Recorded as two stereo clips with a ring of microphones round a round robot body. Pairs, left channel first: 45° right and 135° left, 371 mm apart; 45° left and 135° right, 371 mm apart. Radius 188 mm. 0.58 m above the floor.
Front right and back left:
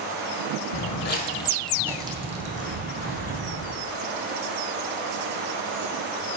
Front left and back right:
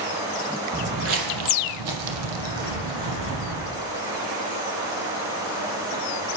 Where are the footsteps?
70° right, 0.8 m; by 3.7 s 165° right, 2.0 m.